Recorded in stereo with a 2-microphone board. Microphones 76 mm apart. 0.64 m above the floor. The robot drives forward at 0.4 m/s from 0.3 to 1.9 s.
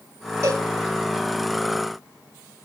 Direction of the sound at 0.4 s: 50° right (ahead or behind).